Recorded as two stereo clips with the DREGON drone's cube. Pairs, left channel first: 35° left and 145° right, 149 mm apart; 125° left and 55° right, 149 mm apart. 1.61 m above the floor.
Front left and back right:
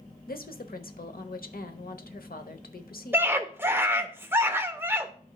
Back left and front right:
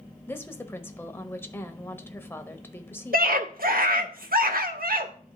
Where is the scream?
70° right, 0.9 m.